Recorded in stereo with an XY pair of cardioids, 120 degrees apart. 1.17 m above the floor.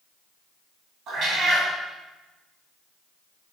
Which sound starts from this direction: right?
A cat meowing, at 1.1 s.